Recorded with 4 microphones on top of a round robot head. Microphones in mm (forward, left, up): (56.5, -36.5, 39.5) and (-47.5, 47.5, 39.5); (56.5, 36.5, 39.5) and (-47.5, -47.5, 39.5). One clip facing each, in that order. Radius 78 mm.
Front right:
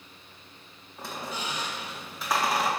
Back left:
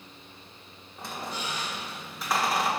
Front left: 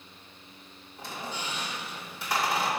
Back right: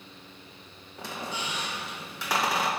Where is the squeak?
130° right, 1.1 m.